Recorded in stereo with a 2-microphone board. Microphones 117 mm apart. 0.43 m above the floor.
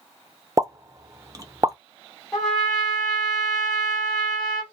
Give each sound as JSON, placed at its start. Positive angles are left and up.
{"t": 0.6, "sound": "a pop", "side_deg": -30, "distance_m": 0.5}
{"t": 2.3, "sound": "a trumpet", "side_deg": 0, "distance_m": 1.7}